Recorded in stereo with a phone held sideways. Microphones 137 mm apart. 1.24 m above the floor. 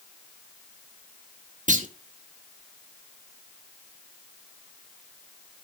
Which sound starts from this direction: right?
A clunk, at 1.7 s.